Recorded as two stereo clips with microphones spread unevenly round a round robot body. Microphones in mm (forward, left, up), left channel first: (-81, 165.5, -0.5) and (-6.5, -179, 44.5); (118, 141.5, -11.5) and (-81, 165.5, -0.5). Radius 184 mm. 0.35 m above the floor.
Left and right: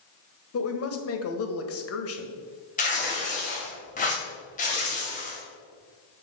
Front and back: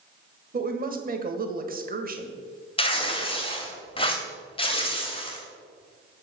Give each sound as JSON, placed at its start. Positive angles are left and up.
{"t": 0.5, "sound": "a woman speaking", "azimuth_deg": 135, "distance_m": 1.5}
{"t": 2.8, "sound": "tearing paper", "azimuth_deg": 45, "distance_m": 2.0}